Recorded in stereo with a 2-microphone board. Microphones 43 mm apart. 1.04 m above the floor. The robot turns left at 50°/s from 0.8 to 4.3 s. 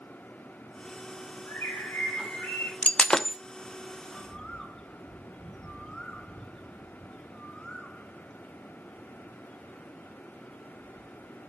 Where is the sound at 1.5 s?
110° left, 4 m; by 2.7 s 45° left, 4 m.